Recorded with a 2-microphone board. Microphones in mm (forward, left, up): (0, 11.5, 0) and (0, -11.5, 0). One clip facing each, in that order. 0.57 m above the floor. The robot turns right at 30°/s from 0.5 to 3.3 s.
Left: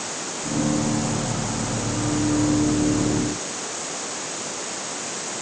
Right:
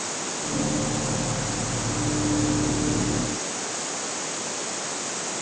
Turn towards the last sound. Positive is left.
No sound to turn to.